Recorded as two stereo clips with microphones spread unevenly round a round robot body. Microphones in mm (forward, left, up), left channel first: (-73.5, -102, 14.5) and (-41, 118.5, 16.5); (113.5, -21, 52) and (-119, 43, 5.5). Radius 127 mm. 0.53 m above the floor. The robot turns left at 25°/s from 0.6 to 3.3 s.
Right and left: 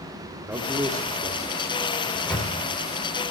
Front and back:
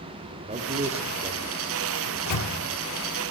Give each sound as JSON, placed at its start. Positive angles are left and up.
{"t": 0.5, "sound": "a man speaking", "azimuth_deg": 155, "distance_m": 1.3}
{"t": 2.1, "sound": "a microwave", "azimuth_deg": -10, "distance_m": 1.4}